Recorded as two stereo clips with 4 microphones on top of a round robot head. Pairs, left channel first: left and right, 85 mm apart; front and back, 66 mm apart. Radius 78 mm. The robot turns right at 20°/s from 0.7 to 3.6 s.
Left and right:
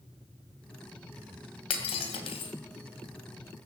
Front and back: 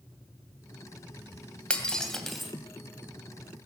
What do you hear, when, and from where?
1.7 s breaking glass: 70° left, 2.5 m; by 2.5 s 90° left, 2.5 m